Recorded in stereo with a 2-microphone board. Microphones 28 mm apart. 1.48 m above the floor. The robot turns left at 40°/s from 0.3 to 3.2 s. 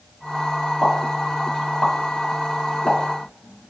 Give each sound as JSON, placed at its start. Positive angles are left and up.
{"t": 0.8, "sound": "a pop", "side_deg": 30, "distance_m": 1.8}